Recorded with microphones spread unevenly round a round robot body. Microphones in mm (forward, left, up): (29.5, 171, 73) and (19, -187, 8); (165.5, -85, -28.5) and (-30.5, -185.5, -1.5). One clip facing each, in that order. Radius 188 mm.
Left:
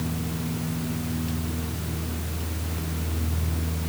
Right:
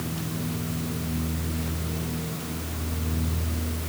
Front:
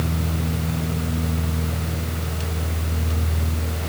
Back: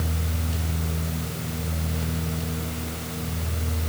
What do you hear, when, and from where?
Only background noise.